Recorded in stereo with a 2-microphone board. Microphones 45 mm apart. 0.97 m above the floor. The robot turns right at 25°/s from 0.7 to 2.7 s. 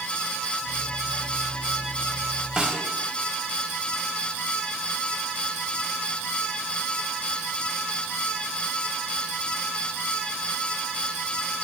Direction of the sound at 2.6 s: 15° right (ahead or behind).